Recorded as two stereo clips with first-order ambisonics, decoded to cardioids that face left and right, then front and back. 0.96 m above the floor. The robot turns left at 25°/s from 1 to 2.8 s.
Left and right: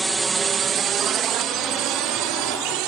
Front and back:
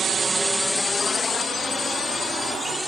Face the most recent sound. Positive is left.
turn(degrees=-90)